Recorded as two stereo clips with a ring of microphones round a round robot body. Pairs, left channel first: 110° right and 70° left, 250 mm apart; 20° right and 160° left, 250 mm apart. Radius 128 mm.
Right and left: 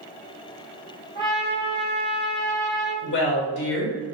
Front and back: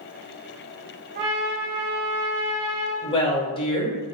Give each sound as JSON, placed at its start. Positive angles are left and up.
{"t": 1.1, "sound": "a trumpet", "azimuth_deg": 180, "distance_m": 1.7}
{"t": 3.0, "sound": "a woman speaking", "azimuth_deg": -85, "distance_m": 1.2}